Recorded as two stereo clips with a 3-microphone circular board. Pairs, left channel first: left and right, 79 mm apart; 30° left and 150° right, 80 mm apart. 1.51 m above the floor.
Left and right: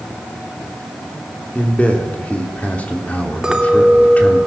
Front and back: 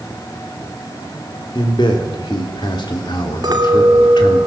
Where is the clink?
170° right, 2 m.